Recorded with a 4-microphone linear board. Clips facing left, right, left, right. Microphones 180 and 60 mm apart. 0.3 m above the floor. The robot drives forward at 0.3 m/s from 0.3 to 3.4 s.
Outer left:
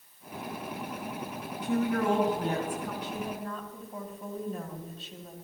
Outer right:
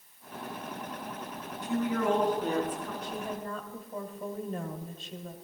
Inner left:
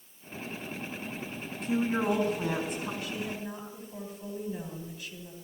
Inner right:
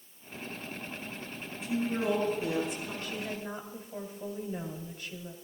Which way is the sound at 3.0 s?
40° right (ahead or behind).